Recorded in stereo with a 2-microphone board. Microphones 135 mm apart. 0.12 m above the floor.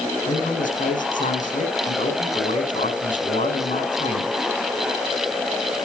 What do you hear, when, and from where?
0.3 s a man speaking: 70° left (ahead or behind), 6 m